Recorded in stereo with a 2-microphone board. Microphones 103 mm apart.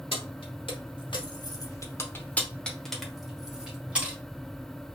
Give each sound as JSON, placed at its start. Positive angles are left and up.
{"t": 0.1, "sound": "keys jangling", "side_deg": 60, "distance_m": 1.1}